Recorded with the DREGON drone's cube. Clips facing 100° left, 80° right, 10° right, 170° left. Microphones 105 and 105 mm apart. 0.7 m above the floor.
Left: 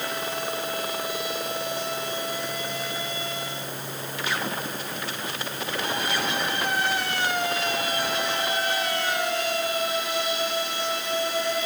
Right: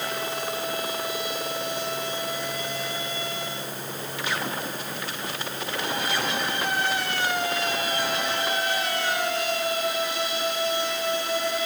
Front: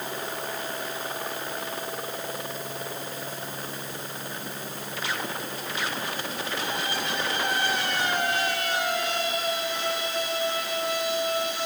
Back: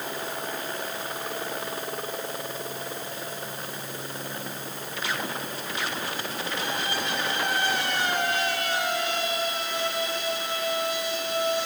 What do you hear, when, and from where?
Only background noise.